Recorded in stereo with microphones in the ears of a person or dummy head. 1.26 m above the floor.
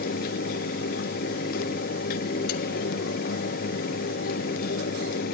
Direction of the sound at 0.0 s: 60° left (ahead or behind).